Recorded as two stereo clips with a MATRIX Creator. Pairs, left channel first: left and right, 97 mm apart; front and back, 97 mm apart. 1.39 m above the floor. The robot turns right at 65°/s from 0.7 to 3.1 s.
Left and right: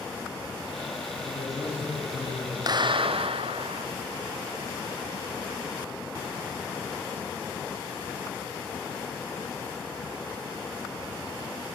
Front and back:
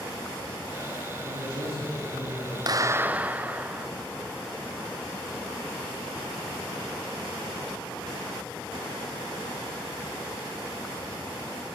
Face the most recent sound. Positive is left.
turn(degrees=-105)